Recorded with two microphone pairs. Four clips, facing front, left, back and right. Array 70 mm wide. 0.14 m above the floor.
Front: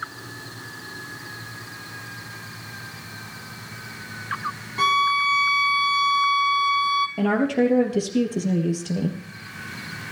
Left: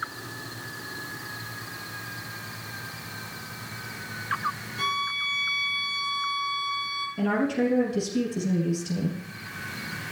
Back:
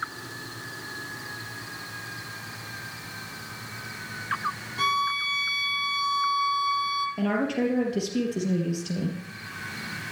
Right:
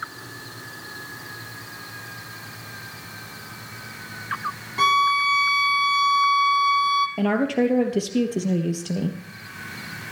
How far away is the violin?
About 1.5 m.